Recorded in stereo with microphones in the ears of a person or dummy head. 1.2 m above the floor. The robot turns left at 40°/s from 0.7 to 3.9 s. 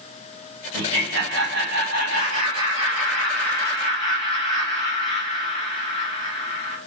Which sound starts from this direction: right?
Laughter, at 0.7 s.